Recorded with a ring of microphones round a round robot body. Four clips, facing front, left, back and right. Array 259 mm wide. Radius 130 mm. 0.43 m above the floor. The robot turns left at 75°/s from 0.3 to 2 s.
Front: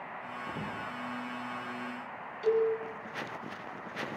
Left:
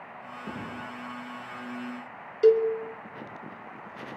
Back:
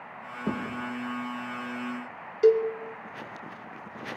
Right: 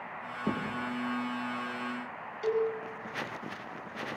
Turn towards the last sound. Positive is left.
turn(degrees=140)